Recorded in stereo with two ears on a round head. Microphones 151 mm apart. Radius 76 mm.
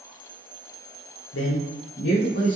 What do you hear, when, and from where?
1.3 s a man speaking: 85° left, 0.6 m; by 2.6 s 55° left (ahead or behind), 1.1 m